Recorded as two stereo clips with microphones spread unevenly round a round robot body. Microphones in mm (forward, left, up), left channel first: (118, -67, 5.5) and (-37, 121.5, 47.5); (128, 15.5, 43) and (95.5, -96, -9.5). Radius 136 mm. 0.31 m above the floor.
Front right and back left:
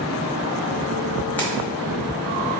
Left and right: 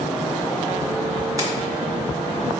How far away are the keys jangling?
About 1.1 m.